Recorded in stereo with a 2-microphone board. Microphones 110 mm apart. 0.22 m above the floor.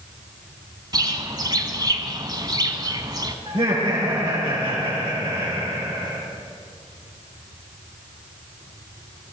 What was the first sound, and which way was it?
A bird, 40° right (ahead or behind).